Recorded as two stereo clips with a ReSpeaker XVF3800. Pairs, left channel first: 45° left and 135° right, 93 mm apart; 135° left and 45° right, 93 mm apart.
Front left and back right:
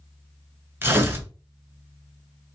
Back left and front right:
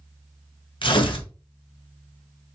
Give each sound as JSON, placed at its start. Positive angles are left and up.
{"t": 0.8, "sound": "tearing paper", "azimuth_deg": 160, "distance_m": 0.7}